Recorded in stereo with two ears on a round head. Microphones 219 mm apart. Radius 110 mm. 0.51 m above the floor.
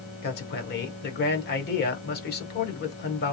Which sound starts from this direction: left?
A man speaking, at 0.2 s.